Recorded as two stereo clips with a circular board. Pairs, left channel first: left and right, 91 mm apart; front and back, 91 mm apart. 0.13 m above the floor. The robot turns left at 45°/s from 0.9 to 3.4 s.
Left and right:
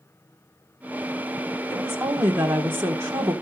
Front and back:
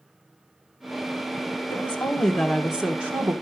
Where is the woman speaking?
50° right, 1.8 m; by 3.3 s 120° right, 1.8 m.